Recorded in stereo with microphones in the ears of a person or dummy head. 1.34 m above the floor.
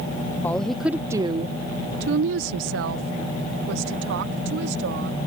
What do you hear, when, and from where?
0.4 s a woman speaking: 10° left (ahead or behind); by 5.3 s 65° right (ahead or behind)